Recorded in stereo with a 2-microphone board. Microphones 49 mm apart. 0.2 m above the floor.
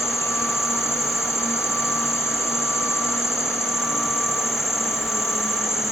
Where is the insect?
65° left (ahead or behind), 2.5 m.